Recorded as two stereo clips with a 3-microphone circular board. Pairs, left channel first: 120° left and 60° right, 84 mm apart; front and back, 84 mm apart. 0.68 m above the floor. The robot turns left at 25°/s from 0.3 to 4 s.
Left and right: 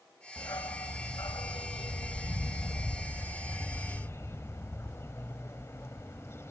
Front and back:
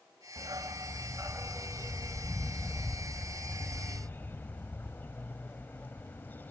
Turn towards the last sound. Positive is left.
turn(degrees=65)